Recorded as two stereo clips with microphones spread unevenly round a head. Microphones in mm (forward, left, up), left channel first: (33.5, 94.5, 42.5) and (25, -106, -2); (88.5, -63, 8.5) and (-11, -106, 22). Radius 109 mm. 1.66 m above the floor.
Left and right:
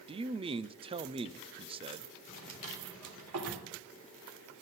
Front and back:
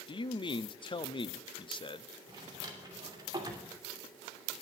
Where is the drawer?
110° right, 3 m.